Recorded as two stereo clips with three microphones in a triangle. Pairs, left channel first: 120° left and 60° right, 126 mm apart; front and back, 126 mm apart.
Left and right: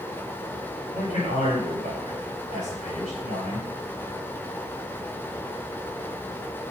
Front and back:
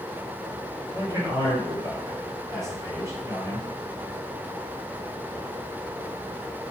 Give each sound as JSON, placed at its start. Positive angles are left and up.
{"t": 0.9, "sound": "a man speaking", "azimuth_deg": 115, "distance_m": 4.0}